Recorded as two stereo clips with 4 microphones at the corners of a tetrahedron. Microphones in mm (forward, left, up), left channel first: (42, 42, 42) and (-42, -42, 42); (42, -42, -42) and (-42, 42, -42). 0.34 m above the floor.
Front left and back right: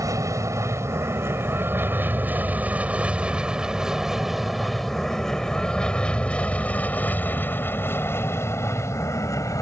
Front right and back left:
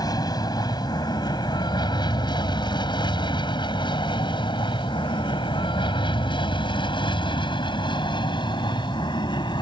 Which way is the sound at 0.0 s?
85° right.